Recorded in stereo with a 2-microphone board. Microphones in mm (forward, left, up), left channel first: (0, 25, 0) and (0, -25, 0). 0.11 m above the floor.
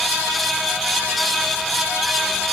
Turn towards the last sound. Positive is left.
No sound to turn to.